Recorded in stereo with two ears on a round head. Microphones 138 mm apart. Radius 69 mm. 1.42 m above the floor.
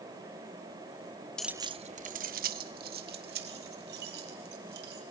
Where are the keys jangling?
5° left (ahead or behind), 0.5 m; by 5.0 s 80° right, 5 m.